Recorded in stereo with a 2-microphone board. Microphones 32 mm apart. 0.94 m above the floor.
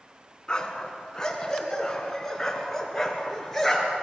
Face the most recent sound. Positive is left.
turn(degrees=10)  # may be behind; listen again after turning